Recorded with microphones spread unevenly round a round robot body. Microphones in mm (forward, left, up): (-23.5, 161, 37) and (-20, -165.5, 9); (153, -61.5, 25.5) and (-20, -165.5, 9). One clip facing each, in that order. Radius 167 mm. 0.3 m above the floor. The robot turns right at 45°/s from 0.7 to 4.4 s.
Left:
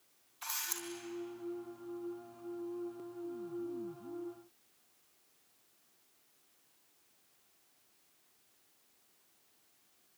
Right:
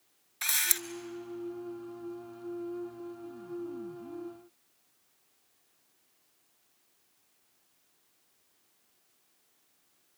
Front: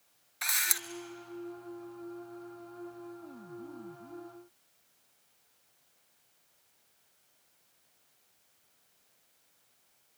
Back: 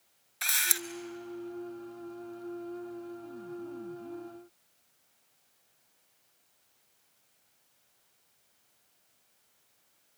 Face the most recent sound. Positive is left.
turn(degrees=80)